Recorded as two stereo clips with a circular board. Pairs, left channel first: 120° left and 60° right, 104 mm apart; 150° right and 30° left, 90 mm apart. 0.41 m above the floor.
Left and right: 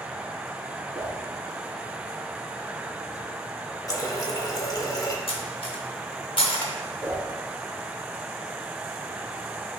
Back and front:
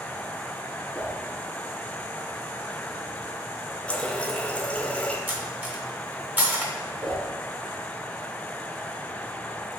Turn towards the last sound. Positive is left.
turn(degrees=10)